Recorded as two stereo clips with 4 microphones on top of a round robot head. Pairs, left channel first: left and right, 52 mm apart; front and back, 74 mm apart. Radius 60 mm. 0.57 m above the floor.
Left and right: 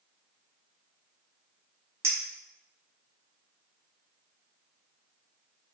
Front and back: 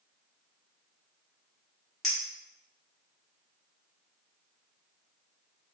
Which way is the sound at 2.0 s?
80° right.